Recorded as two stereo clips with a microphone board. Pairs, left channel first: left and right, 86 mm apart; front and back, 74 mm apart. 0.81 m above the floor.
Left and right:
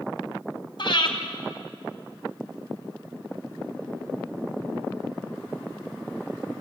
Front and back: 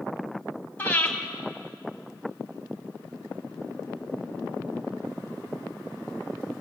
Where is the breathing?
70° left, 4 m.